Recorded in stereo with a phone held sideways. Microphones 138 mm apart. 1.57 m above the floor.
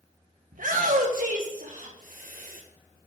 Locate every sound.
0.5 s a shout: 80° right, 1.4 m